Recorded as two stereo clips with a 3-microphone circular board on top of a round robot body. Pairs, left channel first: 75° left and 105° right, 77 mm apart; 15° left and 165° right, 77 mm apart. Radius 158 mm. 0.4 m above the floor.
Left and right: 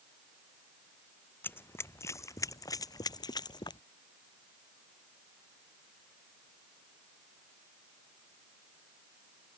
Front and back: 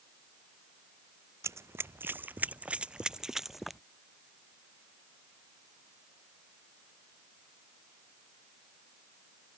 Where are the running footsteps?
140° left; by 3.8 s 105° left.